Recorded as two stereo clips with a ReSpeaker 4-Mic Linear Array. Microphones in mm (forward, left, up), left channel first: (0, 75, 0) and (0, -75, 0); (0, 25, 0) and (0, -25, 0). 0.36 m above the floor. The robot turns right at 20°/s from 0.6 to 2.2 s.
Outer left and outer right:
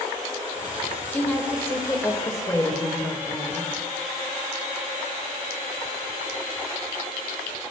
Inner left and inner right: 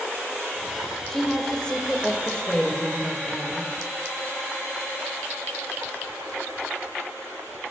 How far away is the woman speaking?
About 1.6 m.